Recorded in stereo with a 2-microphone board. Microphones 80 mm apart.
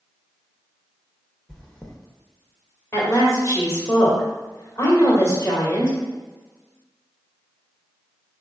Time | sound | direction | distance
1.5 | chewing | 10° left (ahead or behind) | 0.9 m
2.9 | a woman speaking | 35° left (ahead or behind) | 1.8 m